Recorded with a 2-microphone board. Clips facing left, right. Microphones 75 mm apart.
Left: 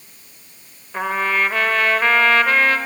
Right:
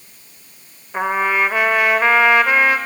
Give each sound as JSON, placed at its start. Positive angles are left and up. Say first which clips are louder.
{"t": 0.9, "sound": "a trumpet", "louder": "right 2 dB", "side_deg": -15, "distance_m": 1.2}